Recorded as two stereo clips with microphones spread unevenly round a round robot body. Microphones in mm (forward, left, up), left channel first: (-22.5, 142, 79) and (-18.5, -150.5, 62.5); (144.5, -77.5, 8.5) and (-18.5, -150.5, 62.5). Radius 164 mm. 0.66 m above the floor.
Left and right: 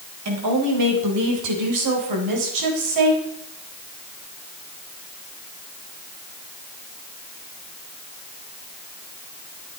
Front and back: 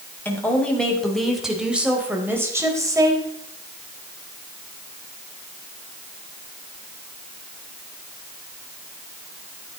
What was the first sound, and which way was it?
A woman speaking, 50° right.